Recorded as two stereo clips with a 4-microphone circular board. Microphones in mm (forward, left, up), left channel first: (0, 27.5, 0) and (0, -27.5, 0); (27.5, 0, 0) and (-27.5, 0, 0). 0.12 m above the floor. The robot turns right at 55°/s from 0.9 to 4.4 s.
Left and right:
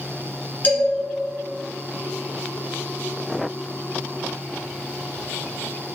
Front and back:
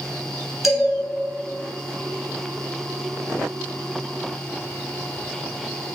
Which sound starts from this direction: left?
A man speaking, at 0.6 s.